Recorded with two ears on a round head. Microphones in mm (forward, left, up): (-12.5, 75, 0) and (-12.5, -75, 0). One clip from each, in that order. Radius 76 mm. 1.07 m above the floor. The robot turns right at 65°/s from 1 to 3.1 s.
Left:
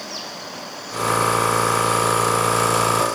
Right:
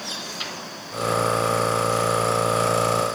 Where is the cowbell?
I don't hear a cowbell.